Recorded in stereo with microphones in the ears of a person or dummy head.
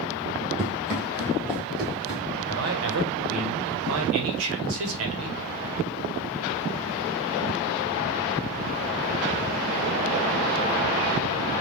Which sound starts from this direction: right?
A man speaking, at 2.5 s.